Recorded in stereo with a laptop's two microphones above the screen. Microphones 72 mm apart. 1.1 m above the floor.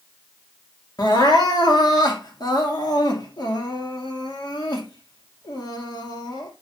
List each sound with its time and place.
1.0 s crying: 70° left (ahead or behind), 2 m